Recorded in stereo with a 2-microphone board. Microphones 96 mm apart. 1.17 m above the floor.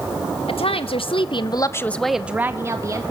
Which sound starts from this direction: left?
A woman speaking, at 0.5 s.